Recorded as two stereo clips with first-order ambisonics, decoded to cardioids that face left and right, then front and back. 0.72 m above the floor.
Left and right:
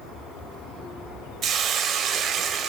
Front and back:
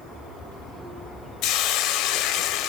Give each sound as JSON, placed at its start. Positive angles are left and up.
{"t": 1.4, "sound": "a hiss", "azimuth_deg": -30, "distance_m": 0.7}